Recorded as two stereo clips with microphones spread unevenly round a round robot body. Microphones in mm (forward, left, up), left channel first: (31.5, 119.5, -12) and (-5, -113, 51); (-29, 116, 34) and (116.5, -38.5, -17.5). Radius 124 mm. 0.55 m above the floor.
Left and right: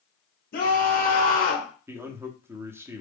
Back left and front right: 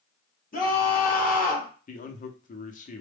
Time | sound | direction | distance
0.5 | a scream | 85° left | 1.9 m
1.9 | a man speaking | 155° left | 0.7 m